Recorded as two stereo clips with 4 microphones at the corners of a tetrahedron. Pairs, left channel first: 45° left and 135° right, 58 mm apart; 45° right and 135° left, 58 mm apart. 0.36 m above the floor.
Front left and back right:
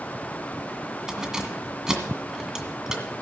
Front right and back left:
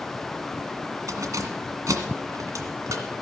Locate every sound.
1.1 s keys jangling: 145° left, 1.8 m